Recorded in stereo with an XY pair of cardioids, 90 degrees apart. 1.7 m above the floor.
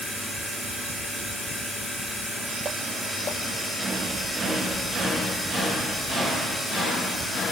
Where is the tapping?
I don't hear tapping.